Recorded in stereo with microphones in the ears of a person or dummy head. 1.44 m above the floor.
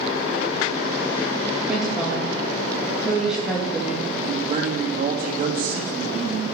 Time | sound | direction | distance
1.7 | a woman speaking | 5° right (ahead or behind) | 2.5 m
4.2 | a man speaking | 45° right (ahead or behind) | 3 m